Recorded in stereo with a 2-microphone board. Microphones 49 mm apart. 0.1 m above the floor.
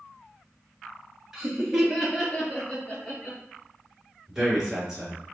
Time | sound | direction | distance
1.3 | laughter | 10° right (ahead or behind) | 1.1 m
4.3 | a man speaking | 10° right (ahead or behind) | 1.8 m